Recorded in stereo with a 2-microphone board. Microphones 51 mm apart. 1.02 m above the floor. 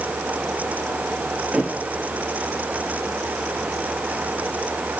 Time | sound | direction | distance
1.5 | a thud | 20° right (ahead or behind) | 4.5 m